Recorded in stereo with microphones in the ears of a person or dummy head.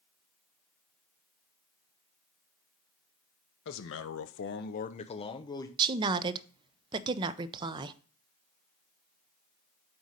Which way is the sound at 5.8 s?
25° right (ahead or behind).